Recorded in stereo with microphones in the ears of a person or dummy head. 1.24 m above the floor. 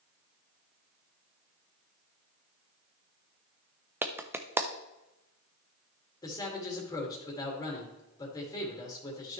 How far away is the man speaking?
About 2 m.